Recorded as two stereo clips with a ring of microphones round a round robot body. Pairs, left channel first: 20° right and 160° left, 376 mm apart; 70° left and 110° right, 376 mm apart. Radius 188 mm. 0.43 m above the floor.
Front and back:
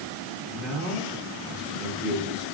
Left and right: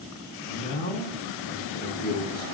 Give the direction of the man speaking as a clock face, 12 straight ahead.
10 o'clock.